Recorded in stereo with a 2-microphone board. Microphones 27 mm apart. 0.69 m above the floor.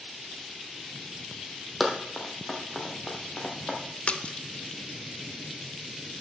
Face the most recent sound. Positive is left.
turn(degrees=50)  # may be behind; listen again after turning